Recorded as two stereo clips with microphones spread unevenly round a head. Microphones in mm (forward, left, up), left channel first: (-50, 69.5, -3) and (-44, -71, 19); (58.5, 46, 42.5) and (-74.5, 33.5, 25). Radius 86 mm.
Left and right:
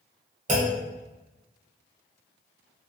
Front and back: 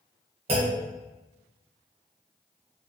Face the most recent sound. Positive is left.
turn(degrees=-125)